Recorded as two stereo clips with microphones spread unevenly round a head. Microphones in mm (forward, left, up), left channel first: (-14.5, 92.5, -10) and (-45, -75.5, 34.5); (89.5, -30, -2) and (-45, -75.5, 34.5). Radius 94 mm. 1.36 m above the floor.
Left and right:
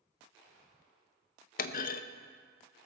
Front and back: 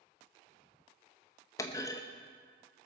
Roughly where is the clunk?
Left.